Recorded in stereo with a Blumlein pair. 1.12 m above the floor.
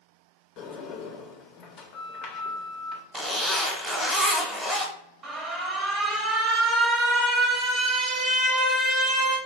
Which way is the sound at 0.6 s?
30° left.